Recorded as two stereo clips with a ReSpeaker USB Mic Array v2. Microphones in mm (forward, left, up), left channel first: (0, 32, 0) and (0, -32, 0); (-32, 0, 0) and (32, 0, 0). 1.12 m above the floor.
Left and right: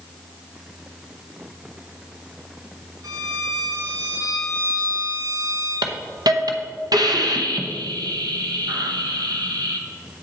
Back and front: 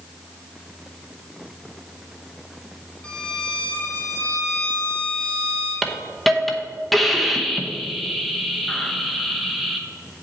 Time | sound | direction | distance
3.0 | a violin | 110° right | 1.5 m
5.8 | a hiss | 90° right | 0.8 m